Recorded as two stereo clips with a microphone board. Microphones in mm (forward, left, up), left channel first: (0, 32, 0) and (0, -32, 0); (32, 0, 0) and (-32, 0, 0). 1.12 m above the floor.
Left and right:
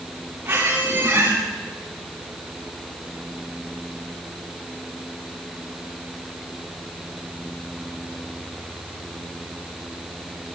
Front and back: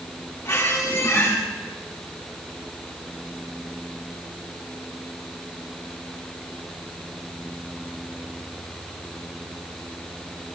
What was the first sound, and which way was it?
A squeak, 35° right.